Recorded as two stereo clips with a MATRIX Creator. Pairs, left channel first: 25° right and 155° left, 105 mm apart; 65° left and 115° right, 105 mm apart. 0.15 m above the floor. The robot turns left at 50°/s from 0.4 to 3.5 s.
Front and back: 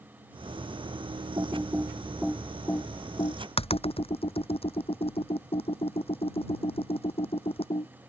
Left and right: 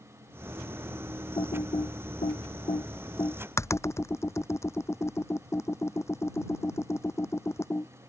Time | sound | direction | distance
1.4 | typing on a keyboard | 110° left | ?